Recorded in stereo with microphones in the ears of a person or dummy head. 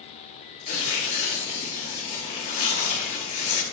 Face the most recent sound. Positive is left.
turn(degrees=35)  # may be behind; listen again after turning